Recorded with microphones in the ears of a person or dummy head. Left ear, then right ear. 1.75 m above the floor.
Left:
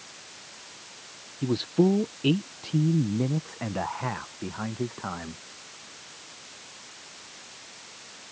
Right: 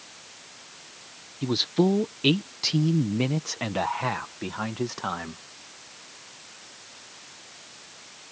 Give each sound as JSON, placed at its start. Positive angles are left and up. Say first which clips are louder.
{"t": 1.4, "sound": "a man speaking", "louder": "right 1 dB", "side_deg": -25}